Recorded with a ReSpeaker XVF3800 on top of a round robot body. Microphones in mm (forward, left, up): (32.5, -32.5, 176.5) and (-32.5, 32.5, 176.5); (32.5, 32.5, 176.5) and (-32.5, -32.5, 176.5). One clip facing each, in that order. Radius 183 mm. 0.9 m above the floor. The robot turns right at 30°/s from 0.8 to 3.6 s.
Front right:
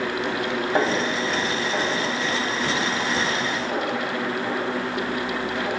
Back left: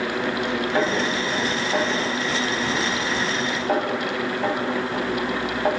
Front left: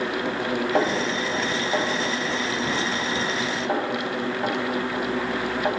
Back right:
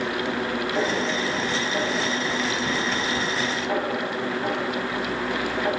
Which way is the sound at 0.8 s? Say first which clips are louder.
Front right 1 dB, front left 1 dB; 25° left.